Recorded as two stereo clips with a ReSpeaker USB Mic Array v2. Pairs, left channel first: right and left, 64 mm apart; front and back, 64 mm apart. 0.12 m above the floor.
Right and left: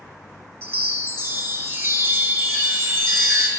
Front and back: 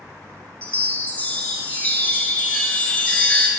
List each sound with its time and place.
0.6 s a chime: 60° left, 0.8 m